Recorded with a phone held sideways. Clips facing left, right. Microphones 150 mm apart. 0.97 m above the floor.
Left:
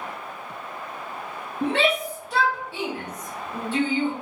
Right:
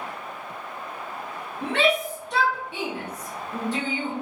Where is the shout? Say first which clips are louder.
Even; 35° left (ahead or behind), 0.6 m; by 4.1 s 45° right (ahead or behind), 1.1 m.